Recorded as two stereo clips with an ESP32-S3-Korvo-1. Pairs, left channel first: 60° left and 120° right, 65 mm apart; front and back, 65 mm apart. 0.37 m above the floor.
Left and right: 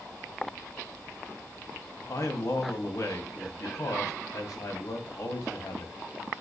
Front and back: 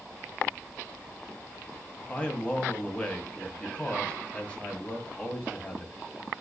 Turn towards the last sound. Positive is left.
turn(degrees=70)